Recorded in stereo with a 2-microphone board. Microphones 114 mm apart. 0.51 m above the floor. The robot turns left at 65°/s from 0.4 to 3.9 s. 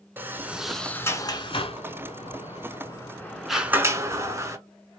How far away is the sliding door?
About 0.8 m.